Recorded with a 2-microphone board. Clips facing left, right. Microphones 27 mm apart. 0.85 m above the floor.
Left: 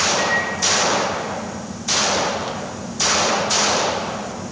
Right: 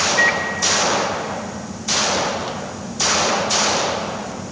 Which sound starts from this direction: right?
A microwave, at 0.2 s.